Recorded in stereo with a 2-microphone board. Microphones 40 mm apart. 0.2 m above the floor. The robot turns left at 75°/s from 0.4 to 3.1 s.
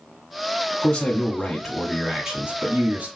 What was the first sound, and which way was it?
A man speaking, 60° left.